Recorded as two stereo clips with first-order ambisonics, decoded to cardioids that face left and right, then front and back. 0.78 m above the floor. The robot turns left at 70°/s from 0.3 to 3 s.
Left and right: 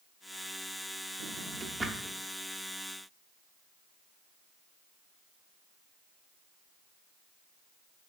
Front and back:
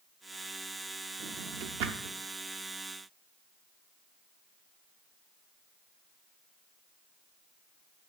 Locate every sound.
1.2 s a drawer: 125° right, 0.7 m; by 2.2 s 170° left, 0.7 m